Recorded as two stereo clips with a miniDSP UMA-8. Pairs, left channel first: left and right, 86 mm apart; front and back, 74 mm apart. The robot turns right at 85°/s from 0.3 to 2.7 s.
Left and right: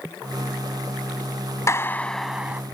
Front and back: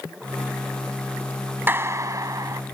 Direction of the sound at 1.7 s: 130° left.